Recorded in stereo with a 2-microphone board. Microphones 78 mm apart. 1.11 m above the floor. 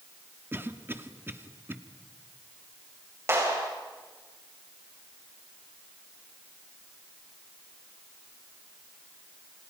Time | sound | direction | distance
0.5 | a cough | 30° right (ahead or behind) | 1.8 m
3.3 | a clap | 35° right (ahead or behind) | 6.5 m